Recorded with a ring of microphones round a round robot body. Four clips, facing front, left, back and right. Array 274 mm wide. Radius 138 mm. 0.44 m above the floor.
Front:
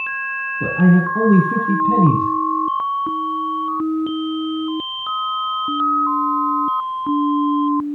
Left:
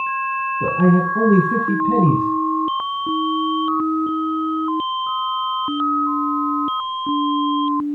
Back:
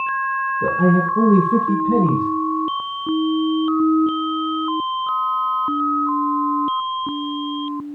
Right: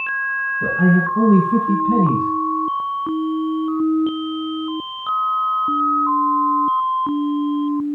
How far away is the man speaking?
About 4.5 m.